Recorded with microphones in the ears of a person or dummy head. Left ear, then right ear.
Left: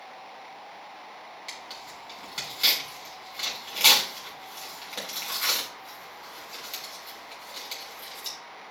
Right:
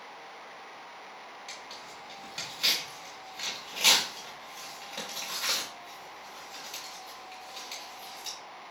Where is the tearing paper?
25° left (ahead or behind), 2.5 m.